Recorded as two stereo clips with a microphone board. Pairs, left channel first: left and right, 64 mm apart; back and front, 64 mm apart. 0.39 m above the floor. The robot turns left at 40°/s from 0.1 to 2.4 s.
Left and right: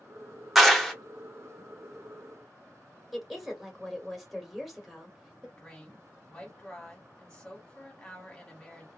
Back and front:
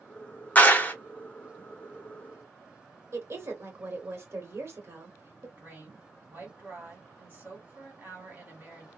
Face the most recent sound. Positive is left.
turn(degrees=20)